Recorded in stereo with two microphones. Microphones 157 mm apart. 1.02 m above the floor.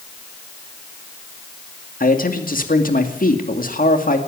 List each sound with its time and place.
2.0 s a man speaking: 60° left (ahead or behind), 2.5 m